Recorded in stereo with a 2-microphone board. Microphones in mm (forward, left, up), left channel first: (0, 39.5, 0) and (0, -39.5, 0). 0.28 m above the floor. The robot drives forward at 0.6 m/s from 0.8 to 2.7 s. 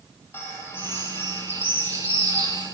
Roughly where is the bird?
Left.